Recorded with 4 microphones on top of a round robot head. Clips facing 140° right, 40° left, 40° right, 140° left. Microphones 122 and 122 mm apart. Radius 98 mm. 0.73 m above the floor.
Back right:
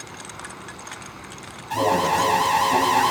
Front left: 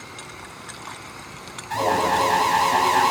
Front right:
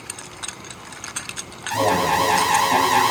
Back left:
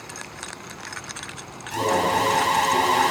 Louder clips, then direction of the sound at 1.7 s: Even, front right 2 dB; 60° right.